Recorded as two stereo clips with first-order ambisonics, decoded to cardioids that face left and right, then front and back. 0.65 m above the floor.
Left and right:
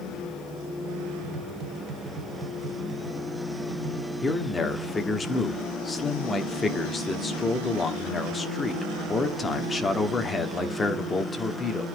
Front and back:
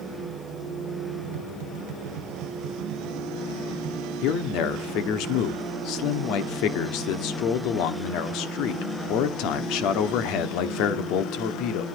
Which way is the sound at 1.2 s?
145° right.